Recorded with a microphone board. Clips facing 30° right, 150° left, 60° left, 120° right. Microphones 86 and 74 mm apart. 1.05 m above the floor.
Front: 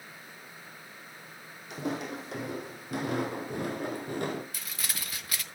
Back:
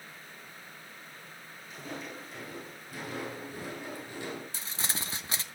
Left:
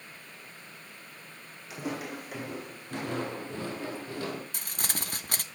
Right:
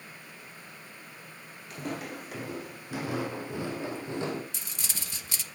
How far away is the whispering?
No whispering in this recording.